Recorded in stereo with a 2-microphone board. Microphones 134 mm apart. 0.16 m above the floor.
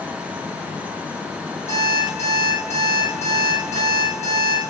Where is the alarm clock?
55° left (ahead or behind), 3.5 m.